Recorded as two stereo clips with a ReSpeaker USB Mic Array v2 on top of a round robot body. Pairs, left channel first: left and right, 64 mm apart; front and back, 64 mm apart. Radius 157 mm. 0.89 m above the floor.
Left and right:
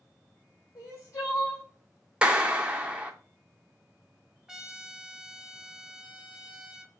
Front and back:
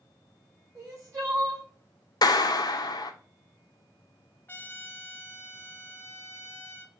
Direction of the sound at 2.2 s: 15° right.